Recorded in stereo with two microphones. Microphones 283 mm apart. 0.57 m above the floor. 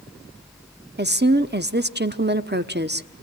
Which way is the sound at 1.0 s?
35° right (ahead or behind).